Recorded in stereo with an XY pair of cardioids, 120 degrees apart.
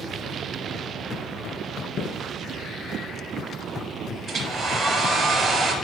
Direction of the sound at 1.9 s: 65° left.